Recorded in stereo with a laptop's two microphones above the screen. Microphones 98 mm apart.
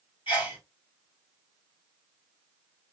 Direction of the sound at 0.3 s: 75° left (ahead or behind).